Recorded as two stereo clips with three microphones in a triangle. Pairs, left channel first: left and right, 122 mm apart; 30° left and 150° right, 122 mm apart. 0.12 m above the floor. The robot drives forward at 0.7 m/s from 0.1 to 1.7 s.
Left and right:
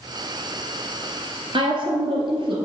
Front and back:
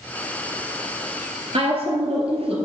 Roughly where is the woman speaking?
Behind right.